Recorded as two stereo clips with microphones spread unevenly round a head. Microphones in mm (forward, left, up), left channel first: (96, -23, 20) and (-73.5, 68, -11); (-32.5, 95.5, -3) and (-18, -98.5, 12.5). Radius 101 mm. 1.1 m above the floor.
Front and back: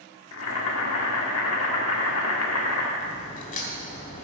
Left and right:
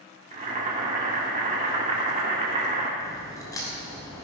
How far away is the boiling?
About 1.7 m.